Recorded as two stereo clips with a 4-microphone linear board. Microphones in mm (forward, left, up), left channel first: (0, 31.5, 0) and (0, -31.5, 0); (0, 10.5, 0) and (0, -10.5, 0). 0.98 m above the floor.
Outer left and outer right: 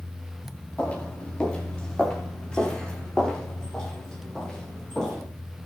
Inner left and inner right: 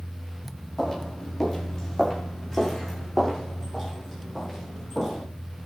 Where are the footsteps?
25° left (ahead or behind), 5.5 m; by 5.2 s 10° left (ahead or behind), 10.5 m.